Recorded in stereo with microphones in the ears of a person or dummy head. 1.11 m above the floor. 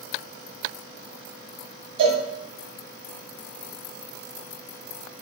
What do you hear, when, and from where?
2.0 s a cowbell: 65° right (ahead or behind), 2.5 m